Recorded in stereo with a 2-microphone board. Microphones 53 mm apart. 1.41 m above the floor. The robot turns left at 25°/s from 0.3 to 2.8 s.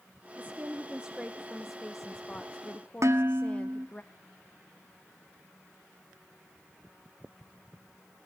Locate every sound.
0.4 s a woman speaking: 145° right, 0.9 m; by 4.0 s 155° left, 0.9 m
3.0 s dishes clattering: 70° right (ahead or behind), 1.6 m